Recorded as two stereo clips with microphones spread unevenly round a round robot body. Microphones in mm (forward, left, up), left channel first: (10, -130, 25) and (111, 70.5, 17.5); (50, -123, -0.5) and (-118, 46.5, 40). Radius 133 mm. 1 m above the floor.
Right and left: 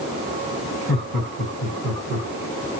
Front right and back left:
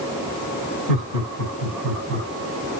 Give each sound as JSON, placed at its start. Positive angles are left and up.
{"t": 0.9, "sound": "laughter", "azimuth_deg": 115, "distance_m": 3.5}